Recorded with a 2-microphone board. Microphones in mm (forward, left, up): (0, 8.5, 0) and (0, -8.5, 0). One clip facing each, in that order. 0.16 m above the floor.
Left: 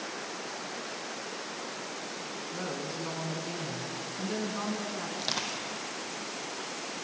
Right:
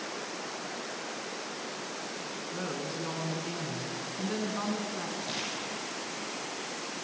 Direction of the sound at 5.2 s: 55° left (ahead or behind).